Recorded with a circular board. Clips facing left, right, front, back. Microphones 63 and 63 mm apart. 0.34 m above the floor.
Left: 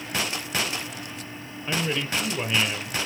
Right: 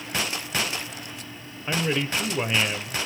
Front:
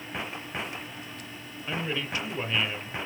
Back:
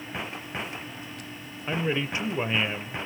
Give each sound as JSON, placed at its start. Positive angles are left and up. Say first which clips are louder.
{"t": 1.7, "sound": "a man speaking", "louder": "right 2 dB, back 4 dB", "azimuth_deg": -145, "distance_m": 0.9}